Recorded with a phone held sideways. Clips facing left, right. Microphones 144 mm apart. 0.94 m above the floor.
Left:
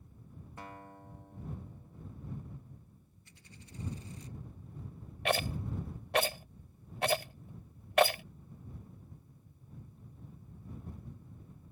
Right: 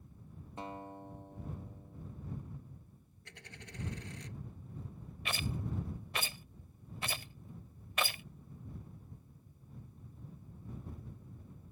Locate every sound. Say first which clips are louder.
0.6 s a guitar: right 5 dB; 20° right (ahead or behind)
3.2 s a dropped coin: right 4 dB; 70° right (ahead or behind)
5.2 s a rattle: left 7 dB; 65° left (ahead or behind)